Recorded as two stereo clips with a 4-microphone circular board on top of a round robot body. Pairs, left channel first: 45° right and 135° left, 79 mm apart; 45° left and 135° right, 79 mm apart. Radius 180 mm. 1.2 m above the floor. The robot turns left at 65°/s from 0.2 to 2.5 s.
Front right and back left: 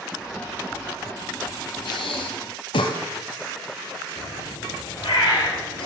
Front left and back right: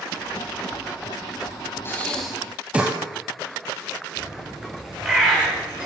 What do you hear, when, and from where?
1.9 s breathing: 15° right, 2 m; by 3.0 s 60° right, 2 m
4.2 s a bird: 55° right, 7 m